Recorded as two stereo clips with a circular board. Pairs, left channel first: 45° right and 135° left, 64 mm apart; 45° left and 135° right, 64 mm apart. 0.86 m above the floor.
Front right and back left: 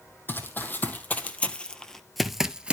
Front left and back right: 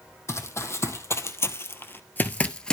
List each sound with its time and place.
0.3 s running footsteps: 10° left, 1.8 m; by 2.7 s 105° left, 0.9 m